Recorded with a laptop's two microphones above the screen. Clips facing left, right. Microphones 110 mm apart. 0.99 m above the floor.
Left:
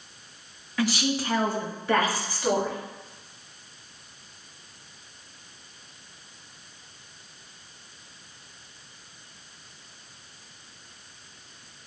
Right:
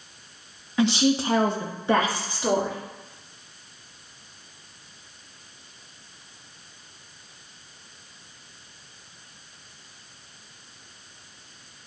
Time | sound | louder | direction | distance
0.8 | a woman speaking | right 5 dB | 20° right (ahead or behind) | 0.7 m